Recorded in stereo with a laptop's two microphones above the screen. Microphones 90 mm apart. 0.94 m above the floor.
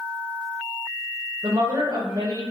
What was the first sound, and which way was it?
A woman speaking, 50° right (ahead or behind).